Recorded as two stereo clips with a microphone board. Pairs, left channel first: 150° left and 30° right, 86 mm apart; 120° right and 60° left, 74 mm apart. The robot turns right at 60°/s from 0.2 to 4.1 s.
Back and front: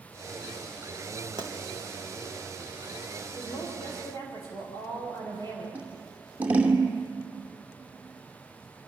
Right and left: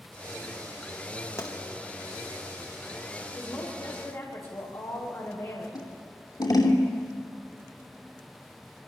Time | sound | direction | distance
1.4 | a pop | 65° right | 4 m
3.4 | a woman speaking | 155° left | 9 m
5.8 | scissors | 100° right | 2.5 m